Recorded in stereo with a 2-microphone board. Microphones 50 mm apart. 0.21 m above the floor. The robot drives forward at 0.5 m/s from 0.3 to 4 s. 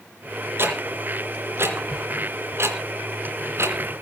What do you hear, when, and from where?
0.6 s ticking: 50° right (ahead or behind), 3.5 m; by 3.8 s 60° right (ahead or behind), 3 m